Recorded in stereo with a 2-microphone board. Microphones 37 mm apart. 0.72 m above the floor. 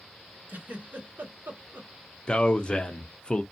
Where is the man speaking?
30° left (ahead or behind), 0.5 m.